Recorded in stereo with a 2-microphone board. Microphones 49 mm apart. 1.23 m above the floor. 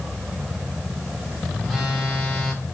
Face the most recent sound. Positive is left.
turn(degrees=-5)  # may be behind; listen again after turning